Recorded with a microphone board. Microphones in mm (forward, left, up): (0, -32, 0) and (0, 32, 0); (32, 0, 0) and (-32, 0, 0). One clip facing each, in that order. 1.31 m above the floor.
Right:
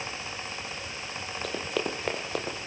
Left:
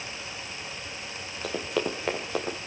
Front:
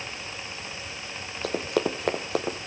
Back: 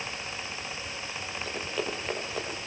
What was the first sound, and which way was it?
Running footsteps, straight ahead.